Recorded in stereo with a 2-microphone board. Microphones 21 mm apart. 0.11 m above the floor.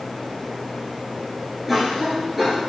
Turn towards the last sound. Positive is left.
turn(degrees=-15)  # may be behind; listen again after turning